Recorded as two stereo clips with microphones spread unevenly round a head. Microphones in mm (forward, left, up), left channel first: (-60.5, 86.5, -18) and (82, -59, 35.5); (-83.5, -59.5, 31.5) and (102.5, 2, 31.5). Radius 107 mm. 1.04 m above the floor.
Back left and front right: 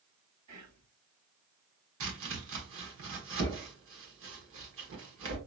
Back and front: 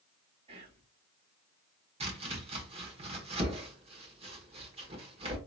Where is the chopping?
40° right, 1.3 m.